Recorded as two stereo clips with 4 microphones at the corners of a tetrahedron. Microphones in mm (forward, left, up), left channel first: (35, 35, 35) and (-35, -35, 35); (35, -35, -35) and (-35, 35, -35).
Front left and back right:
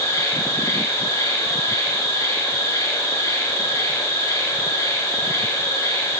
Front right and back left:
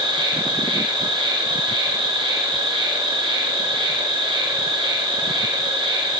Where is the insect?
100° left, 5.5 m.